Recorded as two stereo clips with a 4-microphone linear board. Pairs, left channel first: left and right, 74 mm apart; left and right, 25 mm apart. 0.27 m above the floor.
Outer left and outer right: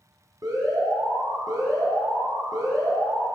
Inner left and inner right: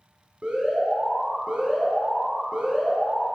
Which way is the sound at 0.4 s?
55° right (ahead or behind).